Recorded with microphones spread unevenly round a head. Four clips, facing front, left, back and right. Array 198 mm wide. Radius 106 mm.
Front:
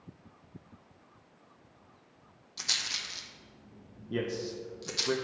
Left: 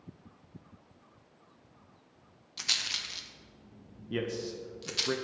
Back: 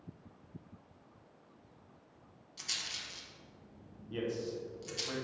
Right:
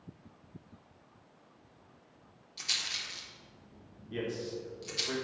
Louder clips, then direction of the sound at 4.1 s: Left 2 dB, front 3 dB; 40° left.